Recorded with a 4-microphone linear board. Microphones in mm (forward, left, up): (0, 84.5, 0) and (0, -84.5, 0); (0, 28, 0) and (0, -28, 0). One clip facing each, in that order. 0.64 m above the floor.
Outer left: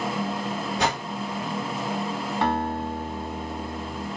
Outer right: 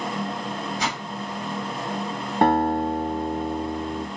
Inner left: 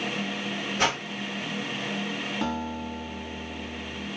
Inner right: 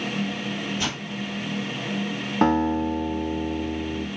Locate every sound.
0.8 s a whoosh: 65° left (ahead or behind), 3.5 m
2.4 s a guitar: 55° right (ahead or behind), 2 m